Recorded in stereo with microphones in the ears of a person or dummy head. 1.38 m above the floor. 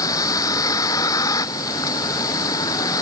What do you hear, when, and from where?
0.0 s a vehicle: 20° left (ahead or behind)